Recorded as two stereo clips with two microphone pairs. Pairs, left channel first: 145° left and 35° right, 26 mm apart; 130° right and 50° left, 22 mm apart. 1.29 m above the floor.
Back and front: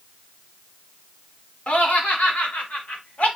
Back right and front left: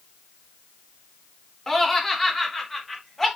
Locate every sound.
1.7 s laughter: 150° left, 4 m; by 3.3 s 145° left, 5.5 m